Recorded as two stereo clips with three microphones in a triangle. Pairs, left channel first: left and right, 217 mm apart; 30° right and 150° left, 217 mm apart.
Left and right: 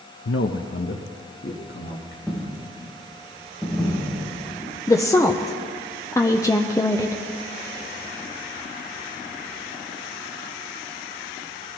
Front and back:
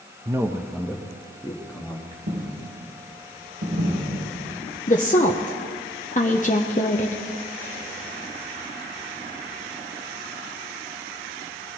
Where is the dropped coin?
Straight behind, 6 m.